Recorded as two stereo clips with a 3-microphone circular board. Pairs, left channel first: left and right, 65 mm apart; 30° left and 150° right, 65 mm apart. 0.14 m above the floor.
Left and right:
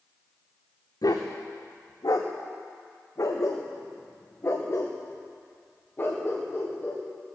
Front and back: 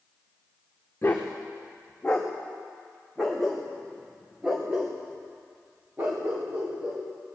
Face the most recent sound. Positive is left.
turn(degrees=155)